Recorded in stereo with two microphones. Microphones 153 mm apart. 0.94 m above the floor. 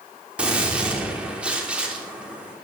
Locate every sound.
0.4 s a gunshot: 5° right (ahead or behind), 3.5 m